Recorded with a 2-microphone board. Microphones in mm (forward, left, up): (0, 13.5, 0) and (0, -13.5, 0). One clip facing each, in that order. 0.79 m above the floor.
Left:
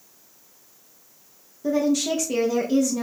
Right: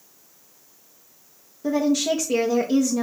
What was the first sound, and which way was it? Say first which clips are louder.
A woman speaking: right 1 dB; 15° right (ahead or behind).